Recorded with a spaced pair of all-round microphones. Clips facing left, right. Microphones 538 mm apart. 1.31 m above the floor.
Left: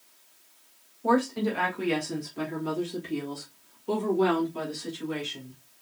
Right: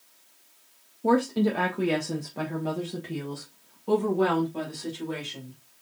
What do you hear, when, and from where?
1.0 s a woman speaking: 50° right (ahead or behind), 0.8 m; by 5.6 s 80° right, 3 m